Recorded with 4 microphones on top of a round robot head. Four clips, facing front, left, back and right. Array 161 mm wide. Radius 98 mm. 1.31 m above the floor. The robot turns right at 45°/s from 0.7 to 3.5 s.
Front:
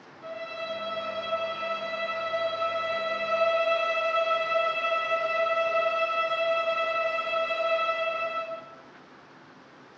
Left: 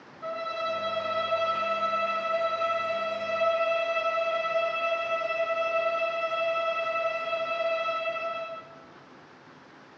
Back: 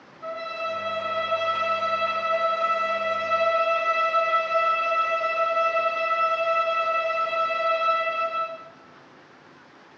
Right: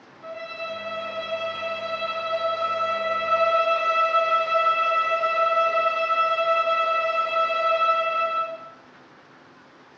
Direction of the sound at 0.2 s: 135° left.